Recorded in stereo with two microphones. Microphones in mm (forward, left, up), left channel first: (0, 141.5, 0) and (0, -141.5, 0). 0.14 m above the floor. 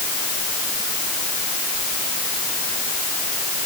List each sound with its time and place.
Only background noise.